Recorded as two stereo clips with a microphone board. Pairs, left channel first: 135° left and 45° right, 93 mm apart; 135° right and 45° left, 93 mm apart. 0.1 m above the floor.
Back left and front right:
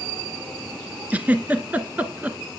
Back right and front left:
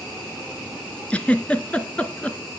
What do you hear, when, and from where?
1.1 s a giggle: 85° right, 1.4 m